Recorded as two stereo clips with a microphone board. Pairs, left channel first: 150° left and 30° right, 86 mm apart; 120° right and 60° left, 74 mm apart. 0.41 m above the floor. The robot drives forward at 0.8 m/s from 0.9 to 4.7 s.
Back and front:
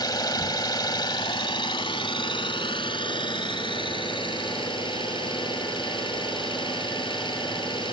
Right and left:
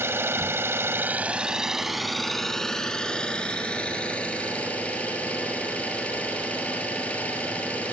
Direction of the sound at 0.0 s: 115° left.